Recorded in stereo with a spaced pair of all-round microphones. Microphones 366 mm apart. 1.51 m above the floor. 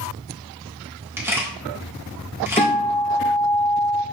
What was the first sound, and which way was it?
A camera shutter, 5° right (ahead or behind).